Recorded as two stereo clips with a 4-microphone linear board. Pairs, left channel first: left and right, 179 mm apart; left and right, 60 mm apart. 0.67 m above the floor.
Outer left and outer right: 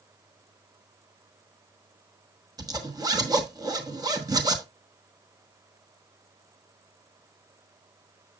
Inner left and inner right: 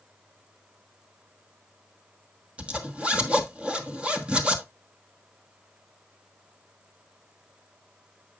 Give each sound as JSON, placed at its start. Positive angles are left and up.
{"t": 2.6, "sound": "a zipper", "side_deg": -20, "distance_m": 1.1}